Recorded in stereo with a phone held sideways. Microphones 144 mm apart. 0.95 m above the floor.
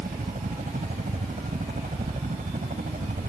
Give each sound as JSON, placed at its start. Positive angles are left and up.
{"t": 0.0, "sound": "a helicopter", "side_deg": -70}